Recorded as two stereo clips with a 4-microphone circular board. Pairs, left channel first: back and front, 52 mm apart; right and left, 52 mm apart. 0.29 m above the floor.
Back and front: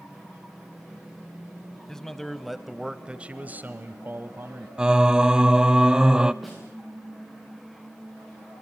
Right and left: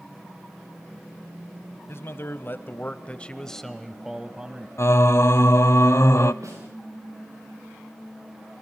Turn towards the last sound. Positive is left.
turn(degrees=90)